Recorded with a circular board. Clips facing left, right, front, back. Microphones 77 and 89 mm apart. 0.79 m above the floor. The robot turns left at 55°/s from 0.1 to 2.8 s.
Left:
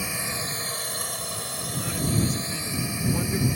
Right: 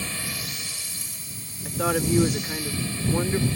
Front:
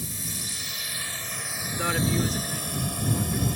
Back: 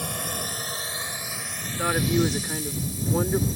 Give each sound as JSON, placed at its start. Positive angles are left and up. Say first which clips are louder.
{"t": 0.0, "sound": "a drone", "louder": "left 2 dB, back 7 dB", "azimuth_deg": 165}
{"t": 1.6, "sound": "a woman speaking", "louder": "right 7 dB, back 2 dB", "azimuth_deg": -90}